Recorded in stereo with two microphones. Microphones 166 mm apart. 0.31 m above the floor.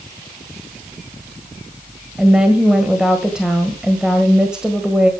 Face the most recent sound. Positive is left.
turn(degrees=-5)  # may be behind; listen again after turning